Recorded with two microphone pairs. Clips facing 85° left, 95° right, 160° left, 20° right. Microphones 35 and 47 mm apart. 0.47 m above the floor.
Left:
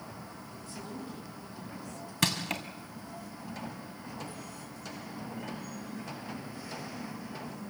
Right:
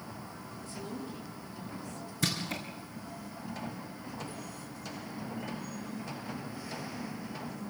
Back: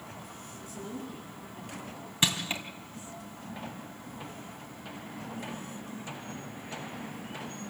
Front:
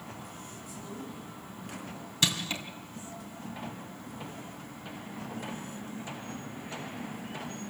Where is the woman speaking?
170° left, 5.5 m.